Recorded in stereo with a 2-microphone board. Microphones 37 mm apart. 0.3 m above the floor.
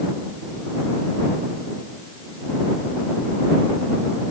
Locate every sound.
Only background noise.